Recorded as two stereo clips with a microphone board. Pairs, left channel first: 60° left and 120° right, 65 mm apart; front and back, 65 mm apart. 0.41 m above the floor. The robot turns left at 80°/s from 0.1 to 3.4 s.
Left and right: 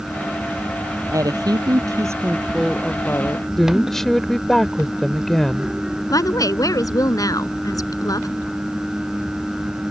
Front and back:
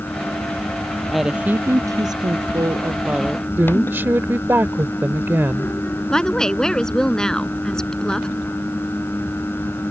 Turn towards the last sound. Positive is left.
turn(degrees=80)